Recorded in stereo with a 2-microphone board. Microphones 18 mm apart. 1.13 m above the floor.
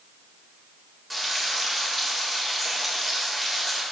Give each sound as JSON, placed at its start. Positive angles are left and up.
{"t": 1.1, "sound": "frying", "side_deg": 5, "distance_m": 1.9}